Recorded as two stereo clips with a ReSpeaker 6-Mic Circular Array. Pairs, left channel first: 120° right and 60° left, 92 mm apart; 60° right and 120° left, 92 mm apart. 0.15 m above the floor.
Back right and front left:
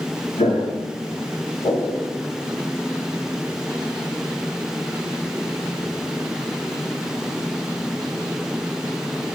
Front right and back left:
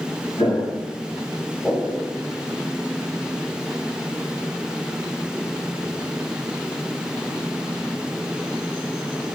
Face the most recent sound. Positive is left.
turn(degrees=-155)